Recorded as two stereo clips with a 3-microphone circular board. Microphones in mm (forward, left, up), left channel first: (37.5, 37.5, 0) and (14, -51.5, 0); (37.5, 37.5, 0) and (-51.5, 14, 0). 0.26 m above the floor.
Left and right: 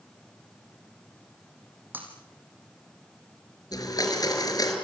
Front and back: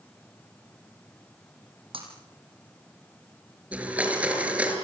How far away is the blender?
About 5 m.